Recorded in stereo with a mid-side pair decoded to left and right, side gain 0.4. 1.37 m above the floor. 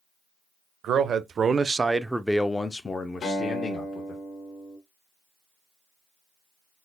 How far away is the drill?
No drill in this recording.